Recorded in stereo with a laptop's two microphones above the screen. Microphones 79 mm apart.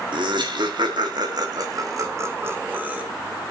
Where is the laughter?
80° right, 1.8 m; by 3.0 s 15° right (ahead or behind), 1.2 m.